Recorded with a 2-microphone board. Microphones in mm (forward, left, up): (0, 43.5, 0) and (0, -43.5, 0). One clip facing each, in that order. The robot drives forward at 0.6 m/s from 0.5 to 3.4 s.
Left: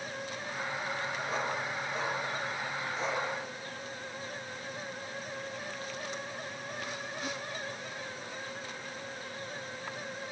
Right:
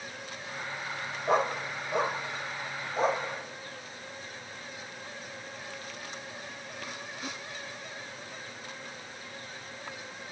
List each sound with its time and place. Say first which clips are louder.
1.3 s a dog barking: right 10 dB; 65° right (ahead or behind), 2.5 m; by 3.2 s 45° right (ahead or behind), 3 m